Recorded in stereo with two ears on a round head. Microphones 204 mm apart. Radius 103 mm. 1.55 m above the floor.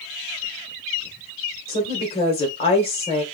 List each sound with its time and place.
1.7 s a woman speaking: 25° left (ahead or behind), 1.5 m